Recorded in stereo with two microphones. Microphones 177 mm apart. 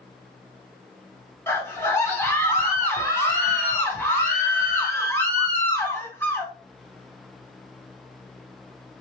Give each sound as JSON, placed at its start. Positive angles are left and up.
{"t": 1.5, "sound": "a scream", "side_deg": 15, "distance_m": 2.5}